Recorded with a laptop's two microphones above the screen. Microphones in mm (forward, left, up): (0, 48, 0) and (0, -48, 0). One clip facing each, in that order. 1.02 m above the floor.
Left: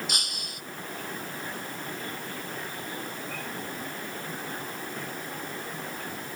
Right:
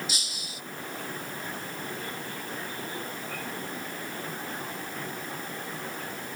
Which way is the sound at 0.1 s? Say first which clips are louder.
Left 2 dB; 55° left (ahead or behind).